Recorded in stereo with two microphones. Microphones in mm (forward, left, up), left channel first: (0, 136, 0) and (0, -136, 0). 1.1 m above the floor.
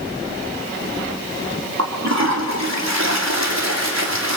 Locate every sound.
1.8 s a toilet flushing: 80° right, 3 m